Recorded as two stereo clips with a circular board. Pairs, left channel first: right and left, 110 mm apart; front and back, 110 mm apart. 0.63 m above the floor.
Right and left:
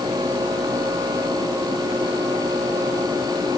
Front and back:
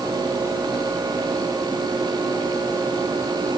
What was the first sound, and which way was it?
Only background noise.